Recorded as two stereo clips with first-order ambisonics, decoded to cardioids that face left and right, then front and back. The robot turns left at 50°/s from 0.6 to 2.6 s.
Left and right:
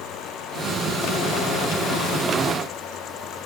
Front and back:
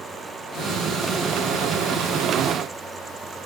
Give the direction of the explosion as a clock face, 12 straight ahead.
I don't hear an explosion.